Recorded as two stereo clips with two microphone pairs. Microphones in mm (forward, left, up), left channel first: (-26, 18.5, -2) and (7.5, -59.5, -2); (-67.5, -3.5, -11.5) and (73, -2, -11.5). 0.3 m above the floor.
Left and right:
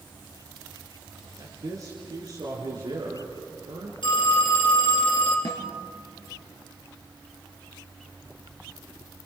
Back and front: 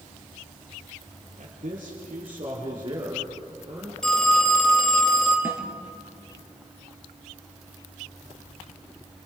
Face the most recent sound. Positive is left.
turn(degrees=75)